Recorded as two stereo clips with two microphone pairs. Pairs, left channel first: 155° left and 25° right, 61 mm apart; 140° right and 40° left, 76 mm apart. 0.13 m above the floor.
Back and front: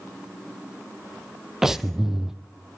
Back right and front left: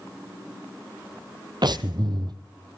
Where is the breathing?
60° left, 1.1 m.